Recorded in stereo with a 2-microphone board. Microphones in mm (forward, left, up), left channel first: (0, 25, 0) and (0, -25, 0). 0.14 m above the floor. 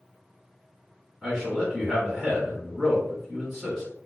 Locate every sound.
1.2 s a man speaking: 5° right (ahead or behind), 1.7 m